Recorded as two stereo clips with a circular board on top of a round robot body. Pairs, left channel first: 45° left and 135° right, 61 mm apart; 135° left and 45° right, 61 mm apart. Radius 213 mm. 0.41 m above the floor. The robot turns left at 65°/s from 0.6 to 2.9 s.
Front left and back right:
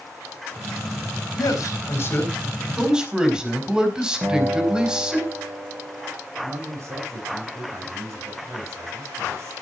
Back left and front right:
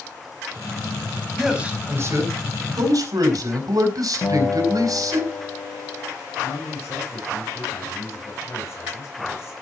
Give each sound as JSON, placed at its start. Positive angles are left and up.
{"t": 1.4, "sound": "a man speaking", "azimuth_deg": 40, "distance_m": 4.5}
{"t": 4.2, "sound": "a guitar", "azimuth_deg": 180, "distance_m": 6.5}
{"t": 6.4, "sound": "a man speaking", "azimuth_deg": -175, "distance_m": 5.0}